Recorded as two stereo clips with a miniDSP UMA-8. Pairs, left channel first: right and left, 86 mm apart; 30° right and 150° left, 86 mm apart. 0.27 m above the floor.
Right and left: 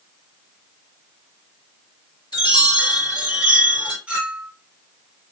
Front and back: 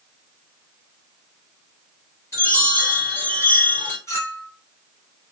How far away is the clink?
About 1.8 m.